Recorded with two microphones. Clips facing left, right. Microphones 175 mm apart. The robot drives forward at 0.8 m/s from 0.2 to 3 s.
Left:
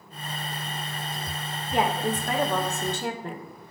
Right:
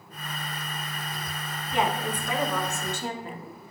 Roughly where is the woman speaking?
Left.